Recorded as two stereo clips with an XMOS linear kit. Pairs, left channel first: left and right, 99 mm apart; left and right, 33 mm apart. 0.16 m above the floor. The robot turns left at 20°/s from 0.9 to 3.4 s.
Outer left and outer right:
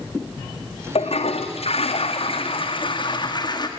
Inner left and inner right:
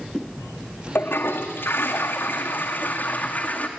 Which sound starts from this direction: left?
A toilet flushing, at 0.9 s.